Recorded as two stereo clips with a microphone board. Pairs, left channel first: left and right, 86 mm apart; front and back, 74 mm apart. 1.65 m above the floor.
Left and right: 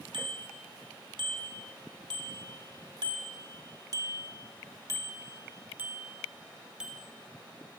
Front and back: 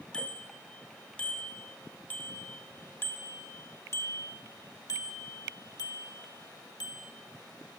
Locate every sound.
0.1 s a bicycle bell: 75° right, 4 m; by 7.1 s 5° right, 2.5 m